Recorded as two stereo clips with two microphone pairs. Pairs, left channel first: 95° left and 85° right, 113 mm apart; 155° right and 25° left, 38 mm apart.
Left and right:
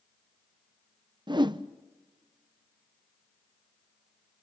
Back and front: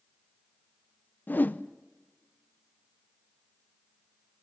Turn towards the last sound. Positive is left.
turn(degrees=-125)